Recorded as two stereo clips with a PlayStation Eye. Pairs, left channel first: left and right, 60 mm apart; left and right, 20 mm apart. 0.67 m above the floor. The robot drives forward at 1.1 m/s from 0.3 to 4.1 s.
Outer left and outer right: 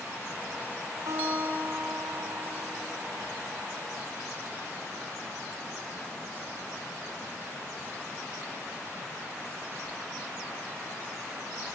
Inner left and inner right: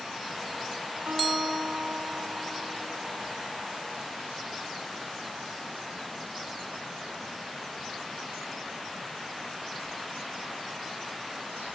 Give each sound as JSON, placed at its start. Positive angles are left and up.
{"t": 1.1, "sound": "a guitar", "side_deg": -60, "distance_m": 3.0}